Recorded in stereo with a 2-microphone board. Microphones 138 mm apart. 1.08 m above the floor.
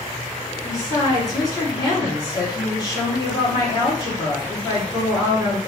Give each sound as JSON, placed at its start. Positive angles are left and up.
{"t": 0.6, "sound": "a woman speaking", "side_deg": 30, "distance_m": 1.9}